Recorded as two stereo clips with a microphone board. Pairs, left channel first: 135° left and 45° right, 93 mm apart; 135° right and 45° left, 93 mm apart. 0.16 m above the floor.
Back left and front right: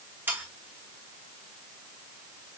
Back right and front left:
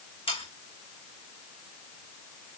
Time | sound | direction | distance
0.3 | sawing | 115° right | 2.5 m